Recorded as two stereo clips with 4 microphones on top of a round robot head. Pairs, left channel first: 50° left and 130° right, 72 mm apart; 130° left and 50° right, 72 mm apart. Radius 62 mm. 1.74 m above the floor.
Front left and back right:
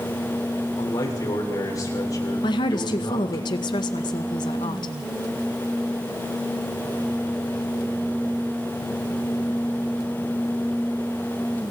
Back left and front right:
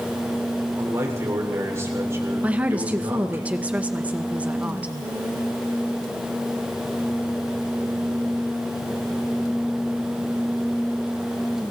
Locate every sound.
0.8 s a man speaking: 5° left, 7.5 m
2.4 s a woman speaking: 25° left, 1.9 m